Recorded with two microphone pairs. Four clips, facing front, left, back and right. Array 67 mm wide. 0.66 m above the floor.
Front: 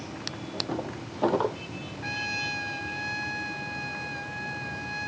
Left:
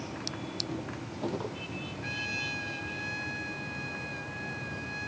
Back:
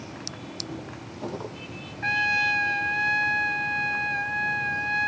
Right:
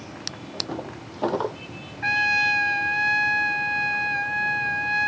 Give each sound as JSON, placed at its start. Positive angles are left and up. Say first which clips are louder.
{"t": 0.3, "sound": "a drawer", "louder": "right 7 dB, front 7 dB", "azimuth_deg": -50}
{"t": 2.0, "sound": "a trumpet", "louder": "right 17 dB, back 9 dB", "azimuth_deg": -120}